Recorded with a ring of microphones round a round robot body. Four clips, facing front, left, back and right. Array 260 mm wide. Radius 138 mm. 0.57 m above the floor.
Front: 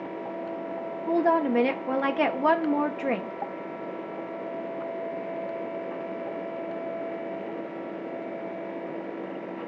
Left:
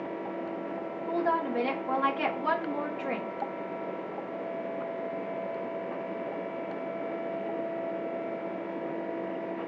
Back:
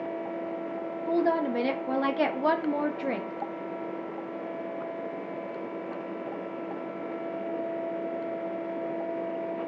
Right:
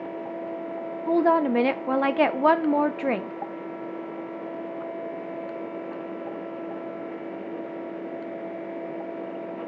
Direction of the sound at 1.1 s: 75° right.